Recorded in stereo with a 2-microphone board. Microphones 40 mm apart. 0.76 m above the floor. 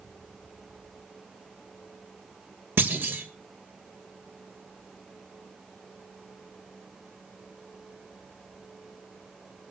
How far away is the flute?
I don't hear a flute.